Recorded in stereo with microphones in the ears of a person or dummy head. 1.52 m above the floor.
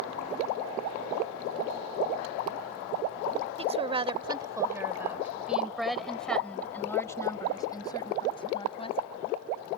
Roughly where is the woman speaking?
Right.